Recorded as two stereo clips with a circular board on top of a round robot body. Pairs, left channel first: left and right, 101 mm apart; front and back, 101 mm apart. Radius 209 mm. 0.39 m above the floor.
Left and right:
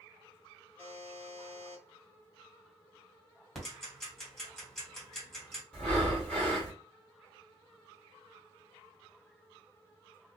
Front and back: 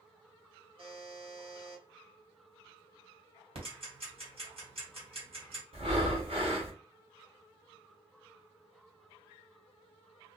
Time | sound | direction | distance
0.8 | a buzzer | 160° left | 1.6 m
3.5 | ticking | 175° left | 1.8 m
5.7 | breathing | 165° left | 1.7 m